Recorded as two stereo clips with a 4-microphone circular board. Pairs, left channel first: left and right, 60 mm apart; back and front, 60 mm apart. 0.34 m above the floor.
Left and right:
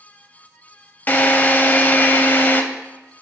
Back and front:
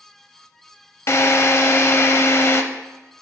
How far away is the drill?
About 0.5 m.